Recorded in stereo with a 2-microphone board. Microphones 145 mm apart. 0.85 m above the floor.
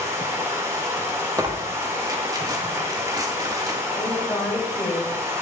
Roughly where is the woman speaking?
Centre.